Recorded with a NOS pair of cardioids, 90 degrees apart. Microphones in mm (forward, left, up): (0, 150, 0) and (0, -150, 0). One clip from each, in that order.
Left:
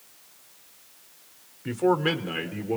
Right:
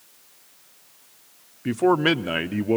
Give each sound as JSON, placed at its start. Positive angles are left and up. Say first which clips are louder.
{"t": 1.6, "sound": "a man speaking", "louder": "right 4 dB", "azimuth_deg": -25, "distance_m": 0.8}